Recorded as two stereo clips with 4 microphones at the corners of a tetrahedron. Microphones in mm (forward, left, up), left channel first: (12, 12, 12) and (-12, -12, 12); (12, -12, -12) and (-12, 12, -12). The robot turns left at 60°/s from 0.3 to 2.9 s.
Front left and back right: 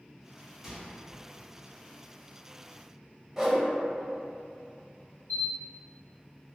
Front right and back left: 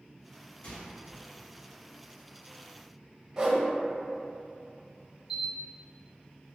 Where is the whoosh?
Straight behind, 0.5 m.